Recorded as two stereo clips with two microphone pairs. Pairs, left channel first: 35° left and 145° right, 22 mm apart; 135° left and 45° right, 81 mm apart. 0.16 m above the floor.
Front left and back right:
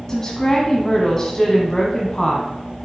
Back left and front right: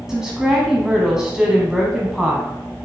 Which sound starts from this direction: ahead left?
A woman speaking, at 0.1 s.